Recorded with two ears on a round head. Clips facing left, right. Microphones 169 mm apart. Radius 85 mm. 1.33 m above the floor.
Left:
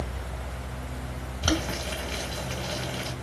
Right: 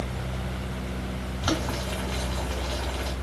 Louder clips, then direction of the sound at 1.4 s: Left 1 dB; 30° left (ahead or behind).